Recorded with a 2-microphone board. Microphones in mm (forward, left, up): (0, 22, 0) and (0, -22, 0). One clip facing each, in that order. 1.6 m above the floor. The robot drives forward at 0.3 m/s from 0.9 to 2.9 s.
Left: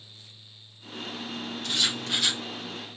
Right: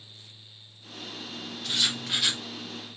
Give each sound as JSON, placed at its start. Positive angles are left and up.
{"t": 1.6, "sound": "writing", "side_deg": -5, "distance_m": 1.0}